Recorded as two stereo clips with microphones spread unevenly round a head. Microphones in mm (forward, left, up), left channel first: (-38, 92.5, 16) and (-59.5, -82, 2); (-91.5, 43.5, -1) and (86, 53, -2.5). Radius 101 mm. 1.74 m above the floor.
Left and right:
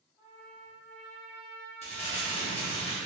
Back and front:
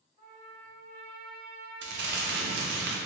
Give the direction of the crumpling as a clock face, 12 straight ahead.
11 o'clock.